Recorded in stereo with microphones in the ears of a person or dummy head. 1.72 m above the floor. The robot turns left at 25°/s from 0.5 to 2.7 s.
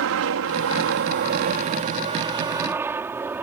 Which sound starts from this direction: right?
An aircraft, at 0.0 s.